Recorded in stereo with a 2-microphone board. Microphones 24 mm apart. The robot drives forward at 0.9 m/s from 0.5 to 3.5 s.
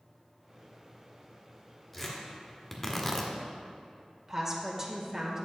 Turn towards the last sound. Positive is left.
turn(degrees=-20)  # may be behind; listen again after turning